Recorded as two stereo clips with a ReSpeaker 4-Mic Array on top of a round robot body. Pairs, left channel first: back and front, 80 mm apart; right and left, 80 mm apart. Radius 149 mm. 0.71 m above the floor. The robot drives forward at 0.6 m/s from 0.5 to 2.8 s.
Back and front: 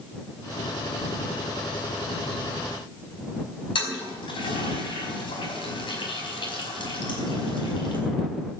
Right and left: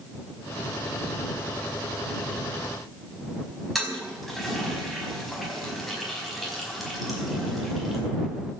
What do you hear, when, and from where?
3.8 s a toilet flushing: straight behind, 5 m